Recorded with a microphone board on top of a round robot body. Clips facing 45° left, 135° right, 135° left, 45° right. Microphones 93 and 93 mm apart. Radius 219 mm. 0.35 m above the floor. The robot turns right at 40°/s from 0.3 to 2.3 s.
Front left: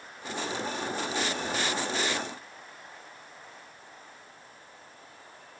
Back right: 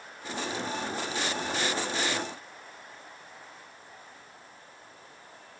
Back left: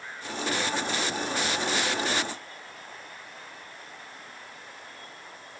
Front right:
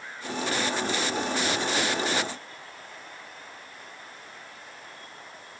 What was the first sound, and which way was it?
Only background noise.